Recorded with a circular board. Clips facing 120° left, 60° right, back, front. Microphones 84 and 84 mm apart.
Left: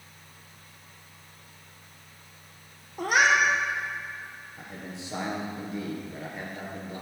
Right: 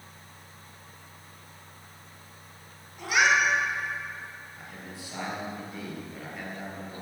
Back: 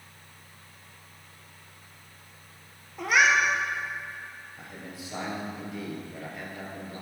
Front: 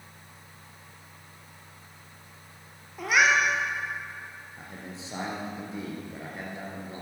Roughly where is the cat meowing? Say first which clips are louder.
Left 1 dB, even; left.